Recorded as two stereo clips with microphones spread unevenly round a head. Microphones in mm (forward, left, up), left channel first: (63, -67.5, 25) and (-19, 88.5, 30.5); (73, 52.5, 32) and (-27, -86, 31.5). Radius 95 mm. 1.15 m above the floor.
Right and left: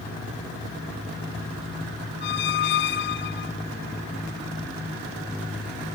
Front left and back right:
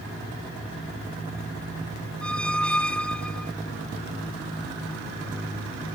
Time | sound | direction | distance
2.2 | a squeak | 30° right | 0.7 m